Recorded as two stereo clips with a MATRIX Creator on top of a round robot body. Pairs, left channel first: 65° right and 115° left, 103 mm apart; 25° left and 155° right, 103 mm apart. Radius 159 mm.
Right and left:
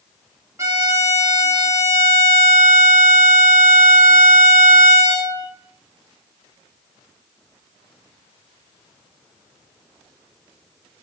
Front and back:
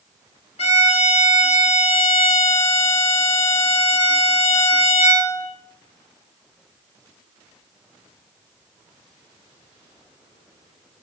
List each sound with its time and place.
0.6 s a violin: 50° left, 1.3 m